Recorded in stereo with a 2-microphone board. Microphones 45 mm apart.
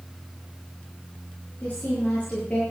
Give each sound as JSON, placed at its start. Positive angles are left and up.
{"t": 1.6, "sound": "a woman speaking", "side_deg": 30, "distance_m": 7.5}